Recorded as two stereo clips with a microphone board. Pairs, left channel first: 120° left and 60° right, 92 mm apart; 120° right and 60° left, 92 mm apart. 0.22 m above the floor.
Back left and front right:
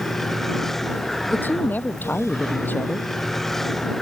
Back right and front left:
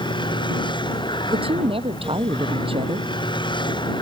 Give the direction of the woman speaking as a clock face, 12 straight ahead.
10 o'clock.